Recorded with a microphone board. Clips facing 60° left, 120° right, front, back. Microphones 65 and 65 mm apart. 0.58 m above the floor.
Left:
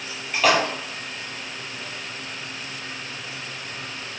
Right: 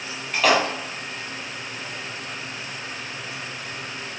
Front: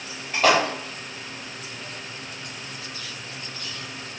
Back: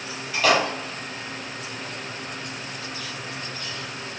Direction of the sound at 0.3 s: 30° right.